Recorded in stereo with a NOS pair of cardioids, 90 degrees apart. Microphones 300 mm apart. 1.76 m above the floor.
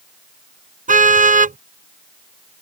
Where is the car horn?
25° right.